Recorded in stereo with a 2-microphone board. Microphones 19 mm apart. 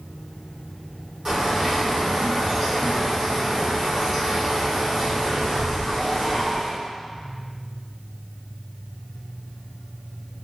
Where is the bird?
25° right (ahead or behind), 1.8 m.